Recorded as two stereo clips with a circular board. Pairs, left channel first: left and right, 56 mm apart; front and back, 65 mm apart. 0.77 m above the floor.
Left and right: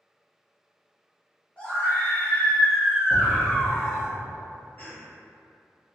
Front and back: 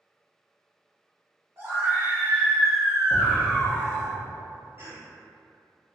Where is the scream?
150° left, 1.3 m; by 4.1 s 15° left, 1.2 m.